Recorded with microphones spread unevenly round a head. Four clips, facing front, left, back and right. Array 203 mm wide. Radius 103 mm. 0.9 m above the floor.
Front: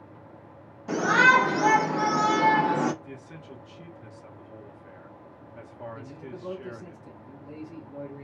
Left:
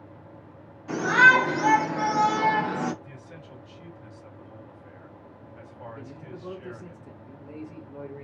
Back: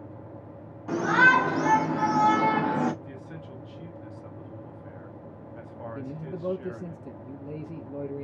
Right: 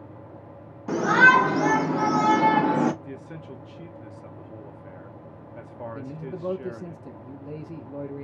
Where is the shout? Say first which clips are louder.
Right 1 dB, front 1 dB; 80° right, 2 m; by 2.9 s 70° right, 1.0 m.